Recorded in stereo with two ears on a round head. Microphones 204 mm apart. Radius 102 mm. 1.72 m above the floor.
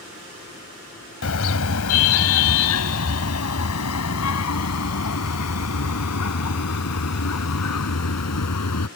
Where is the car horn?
75° left (ahead or behind); by 8.9 s 85° left.